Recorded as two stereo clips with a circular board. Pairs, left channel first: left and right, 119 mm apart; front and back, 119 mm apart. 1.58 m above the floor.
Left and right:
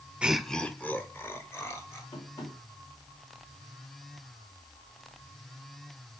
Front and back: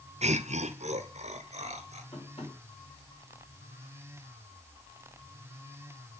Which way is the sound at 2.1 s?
40° left.